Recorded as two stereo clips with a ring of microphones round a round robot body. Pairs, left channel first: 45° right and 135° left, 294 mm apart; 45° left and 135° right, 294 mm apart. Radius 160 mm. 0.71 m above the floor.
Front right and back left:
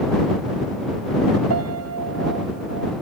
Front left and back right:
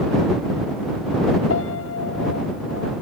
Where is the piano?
95° left.